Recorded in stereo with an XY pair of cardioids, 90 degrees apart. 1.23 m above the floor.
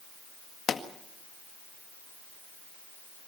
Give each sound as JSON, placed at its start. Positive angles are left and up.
{"t": 0.7, "sound": "a pop", "azimuth_deg": 60, "distance_m": 1.9}